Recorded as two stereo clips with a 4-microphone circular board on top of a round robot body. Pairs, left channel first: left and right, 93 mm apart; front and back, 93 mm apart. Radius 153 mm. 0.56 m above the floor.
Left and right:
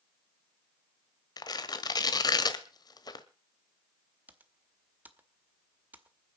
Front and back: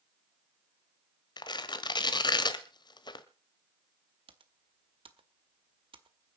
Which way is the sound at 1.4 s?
40° left.